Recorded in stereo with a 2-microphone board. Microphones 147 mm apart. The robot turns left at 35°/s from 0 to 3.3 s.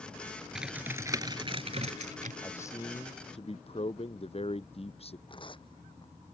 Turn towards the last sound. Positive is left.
turn(degrees=35)  # may be behind; listen again after turning